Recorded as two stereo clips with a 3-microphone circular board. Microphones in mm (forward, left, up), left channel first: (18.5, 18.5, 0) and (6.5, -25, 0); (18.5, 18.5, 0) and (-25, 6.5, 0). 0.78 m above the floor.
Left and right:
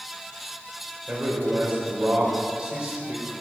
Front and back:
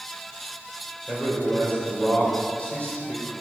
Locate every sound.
1.1 s a man speaking: 40° right, 3.5 m